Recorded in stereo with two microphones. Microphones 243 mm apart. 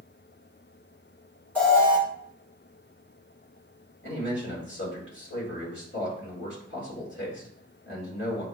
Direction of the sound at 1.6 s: 5° left (ahead or behind).